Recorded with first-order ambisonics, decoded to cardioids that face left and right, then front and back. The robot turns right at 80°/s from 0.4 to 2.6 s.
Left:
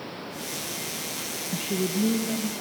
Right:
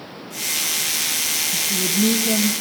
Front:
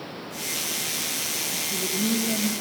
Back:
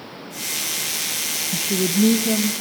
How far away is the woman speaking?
About 0.8 m.